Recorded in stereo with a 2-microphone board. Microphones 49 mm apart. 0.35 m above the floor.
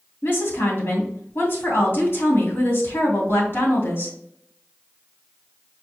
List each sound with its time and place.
0.2 s a woman speaking: 50° left (ahead or behind), 2.5 m